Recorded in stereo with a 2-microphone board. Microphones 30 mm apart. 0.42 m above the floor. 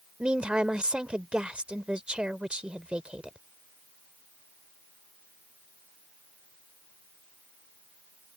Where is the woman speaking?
40° right (ahead or behind).